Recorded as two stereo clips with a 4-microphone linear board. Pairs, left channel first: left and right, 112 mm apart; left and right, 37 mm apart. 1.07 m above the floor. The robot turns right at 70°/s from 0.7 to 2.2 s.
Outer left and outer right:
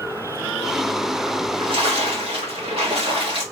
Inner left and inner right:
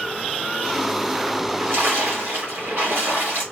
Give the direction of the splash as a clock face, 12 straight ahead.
4 o'clock.